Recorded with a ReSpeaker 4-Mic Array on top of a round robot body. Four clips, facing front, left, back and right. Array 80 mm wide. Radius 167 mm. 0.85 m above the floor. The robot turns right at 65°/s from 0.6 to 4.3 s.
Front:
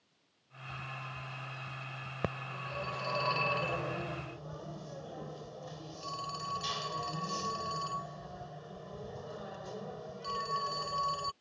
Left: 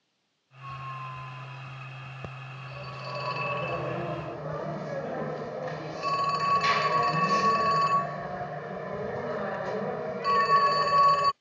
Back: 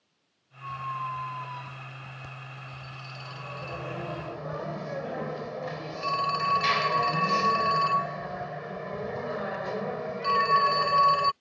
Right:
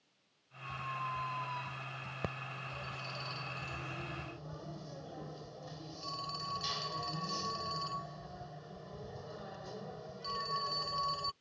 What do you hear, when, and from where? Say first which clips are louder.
0.6 s a squeak: left 2 dB, back 12 dB; 155° left; by 2.1 s 110° right
2.2 s a phone ringing: right 2 dB, front 5 dB; 10° right; by 11.3 s 120° left